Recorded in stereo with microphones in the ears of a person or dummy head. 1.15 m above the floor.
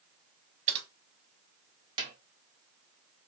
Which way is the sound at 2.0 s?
25° right (ahead or behind).